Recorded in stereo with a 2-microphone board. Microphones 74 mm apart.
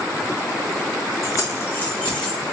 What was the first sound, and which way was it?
Keys jangling, 45° left (ahead or behind).